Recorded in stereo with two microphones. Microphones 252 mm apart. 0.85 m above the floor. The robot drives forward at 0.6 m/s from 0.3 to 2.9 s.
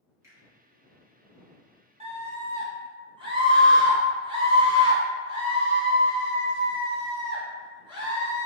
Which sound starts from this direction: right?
A scream, at 2.0 s.